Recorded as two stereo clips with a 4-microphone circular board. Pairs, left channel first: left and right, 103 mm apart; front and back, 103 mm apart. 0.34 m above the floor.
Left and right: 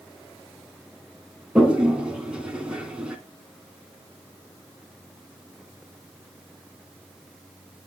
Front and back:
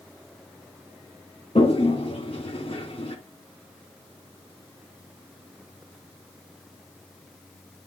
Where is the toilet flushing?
10° right, 2 m.